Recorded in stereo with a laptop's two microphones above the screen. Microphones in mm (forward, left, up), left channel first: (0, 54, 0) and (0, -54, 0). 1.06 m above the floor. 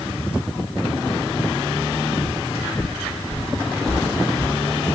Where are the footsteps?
35° left (ahead or behind), 7 m; by 4.5 s 45° left (ahead or behind), 6.5 m.